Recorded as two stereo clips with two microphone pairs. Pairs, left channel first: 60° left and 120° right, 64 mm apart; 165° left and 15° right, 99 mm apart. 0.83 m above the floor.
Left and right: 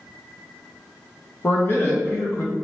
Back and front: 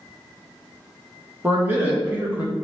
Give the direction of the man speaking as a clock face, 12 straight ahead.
11 o'clock.